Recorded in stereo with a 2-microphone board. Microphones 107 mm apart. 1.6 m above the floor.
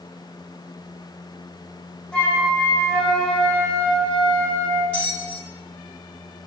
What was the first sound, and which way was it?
A flute, 5° left (ahead or behind).